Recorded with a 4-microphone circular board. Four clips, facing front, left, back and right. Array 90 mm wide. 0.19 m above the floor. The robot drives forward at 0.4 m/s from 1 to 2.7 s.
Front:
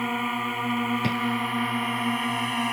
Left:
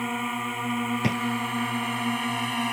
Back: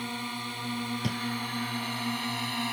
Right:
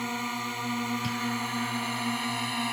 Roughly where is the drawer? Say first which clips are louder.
Left 6 dB, front 7 dB; ahead left.